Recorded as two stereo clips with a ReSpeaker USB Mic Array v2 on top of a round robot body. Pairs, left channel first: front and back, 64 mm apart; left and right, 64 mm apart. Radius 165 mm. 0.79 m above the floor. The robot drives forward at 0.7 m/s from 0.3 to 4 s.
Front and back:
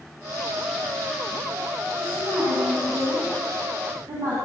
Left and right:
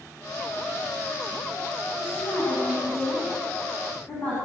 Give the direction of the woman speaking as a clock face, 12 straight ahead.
7 o'clock.